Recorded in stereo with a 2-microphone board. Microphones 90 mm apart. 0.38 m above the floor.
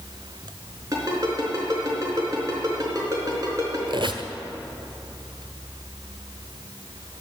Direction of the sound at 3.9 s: 70° right (ahead or behind).